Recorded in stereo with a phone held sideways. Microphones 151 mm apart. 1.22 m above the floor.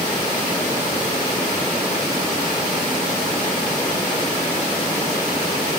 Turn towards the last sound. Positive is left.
No sound to turn to.